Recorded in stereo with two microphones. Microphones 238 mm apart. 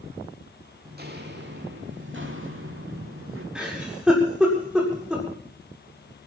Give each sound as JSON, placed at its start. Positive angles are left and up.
{"t": 0.8, "sound": "footsteps", "side_deg": -40, "distance_m": 4.0}
{"t": 3.5, "sound": "a giggle", "side_deg": -5, "distance_m": 7.5}